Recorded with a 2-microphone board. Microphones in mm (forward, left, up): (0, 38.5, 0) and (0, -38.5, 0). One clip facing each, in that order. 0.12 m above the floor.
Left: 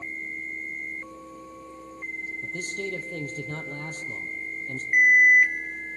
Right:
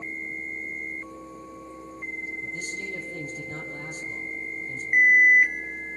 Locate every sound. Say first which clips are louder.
2.4 s a man speaking: left 2 dB; 65° left (ahead or behind), 3.5 m
4.9 s an alarm: even; 15° right (ahead or behind), 3.5 m